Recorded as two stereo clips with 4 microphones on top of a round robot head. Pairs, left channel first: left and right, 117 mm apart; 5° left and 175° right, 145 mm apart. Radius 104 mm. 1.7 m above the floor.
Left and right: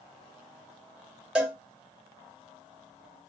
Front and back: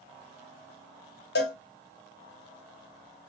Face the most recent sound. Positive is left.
turn(degrees=-10)